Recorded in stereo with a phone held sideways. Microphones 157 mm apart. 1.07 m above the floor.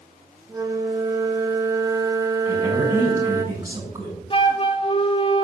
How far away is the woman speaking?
About 3.5 m.